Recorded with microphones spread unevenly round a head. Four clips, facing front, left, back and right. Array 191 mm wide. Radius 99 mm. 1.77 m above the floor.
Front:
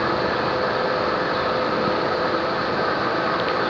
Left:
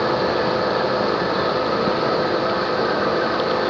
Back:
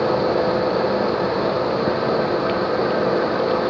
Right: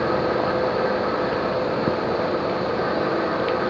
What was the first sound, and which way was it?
Only background noise.